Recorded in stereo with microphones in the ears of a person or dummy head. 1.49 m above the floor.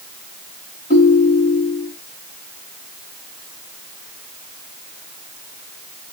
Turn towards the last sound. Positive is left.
turn(degrees=45)  # may be behind; listen again after turning